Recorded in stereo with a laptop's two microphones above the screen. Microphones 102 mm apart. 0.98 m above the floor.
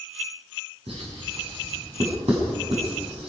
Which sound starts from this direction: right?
Writing, at 0.9 s.